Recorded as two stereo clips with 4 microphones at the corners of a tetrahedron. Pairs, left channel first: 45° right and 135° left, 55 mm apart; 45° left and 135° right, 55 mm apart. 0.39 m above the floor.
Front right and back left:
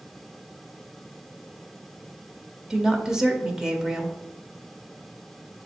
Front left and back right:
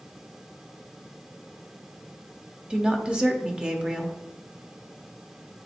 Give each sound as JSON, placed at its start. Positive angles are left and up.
{"t": 2.7, "sound": "a woman speaking", "azimuth_deg": -170, "distance_m": 0.9}